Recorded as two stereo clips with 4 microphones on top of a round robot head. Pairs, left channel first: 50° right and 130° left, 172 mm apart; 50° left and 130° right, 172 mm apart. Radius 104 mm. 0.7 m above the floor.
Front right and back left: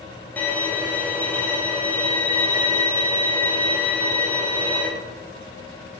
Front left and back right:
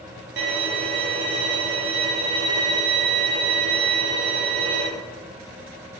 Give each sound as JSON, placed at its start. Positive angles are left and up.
{"t": 0.4, "sound": "a violin", "azimuth_deg": -130, "distance_m": 0.6}